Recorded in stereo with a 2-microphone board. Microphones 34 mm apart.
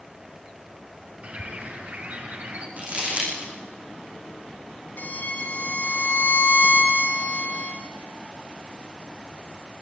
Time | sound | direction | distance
1.2 | a bird | 45° right (ahead or behind) | 3.5 m
2.8 | crumpling | 40° right (ahead or behind) | 9.5 m
5.0 | a violin | 60° left (ahead or behind) | 4 m